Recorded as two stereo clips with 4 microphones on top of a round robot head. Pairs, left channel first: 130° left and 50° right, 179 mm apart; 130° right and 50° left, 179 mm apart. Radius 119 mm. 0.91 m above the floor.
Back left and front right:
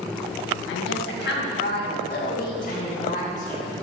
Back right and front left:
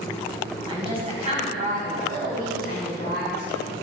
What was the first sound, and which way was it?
A woman speaking, 115° left.